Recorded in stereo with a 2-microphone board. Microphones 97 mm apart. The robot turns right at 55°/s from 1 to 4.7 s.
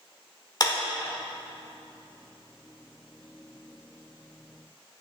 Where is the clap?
40° left (ahead or behind), 1.0 m.